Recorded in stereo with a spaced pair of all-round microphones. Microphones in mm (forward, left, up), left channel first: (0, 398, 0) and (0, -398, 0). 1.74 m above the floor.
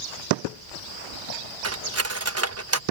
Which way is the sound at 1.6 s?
20° right (ahead or behind).